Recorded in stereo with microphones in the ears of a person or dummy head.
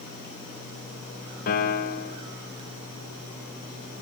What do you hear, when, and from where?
1.5 s a piano: 40° left (ahead or behind), 1.8 m